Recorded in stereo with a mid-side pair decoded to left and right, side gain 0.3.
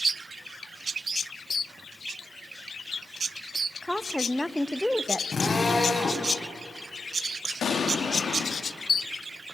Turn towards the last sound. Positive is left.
turn(degrees=70)